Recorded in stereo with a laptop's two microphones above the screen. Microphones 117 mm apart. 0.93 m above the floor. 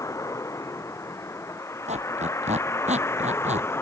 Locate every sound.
0.0 s a vehicle: 25° left (ahead or behind); by 3.8 s 20° left (ahead or behind)
1.9 s a squeak: 80° right